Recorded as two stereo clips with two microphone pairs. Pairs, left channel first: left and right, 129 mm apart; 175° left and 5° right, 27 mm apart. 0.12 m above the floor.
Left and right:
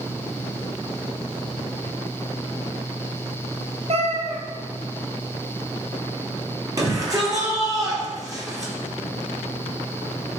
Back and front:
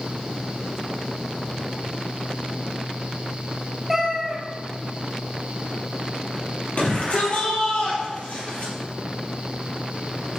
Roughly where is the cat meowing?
Right.